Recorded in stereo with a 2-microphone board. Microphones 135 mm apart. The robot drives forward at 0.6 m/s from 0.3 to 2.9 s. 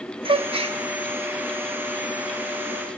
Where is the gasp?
35° right (ahead or behind), 1.0 m; by 0.8 s 45° right (ahead or behind), 0.9 m.